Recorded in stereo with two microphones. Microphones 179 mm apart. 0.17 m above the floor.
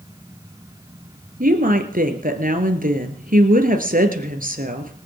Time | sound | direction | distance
1.4 | a woman speaking | 50° right (ahead or behind) | 2.5 m